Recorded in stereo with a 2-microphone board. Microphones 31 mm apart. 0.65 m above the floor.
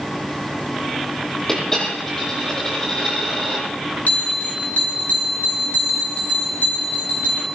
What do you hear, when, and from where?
1.5 s a dropped coin: 15° left (ahead or behind), 8.5 m
4.1 s a bell: 60° left (ahead or behind), 3 m